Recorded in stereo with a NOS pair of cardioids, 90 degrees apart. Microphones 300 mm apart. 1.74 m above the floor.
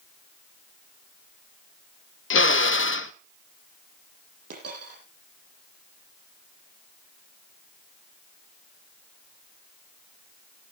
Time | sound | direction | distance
2.3 | a drill | 40° left | 1.1 m
4.5 | a dropped coin | 55° right | 8 m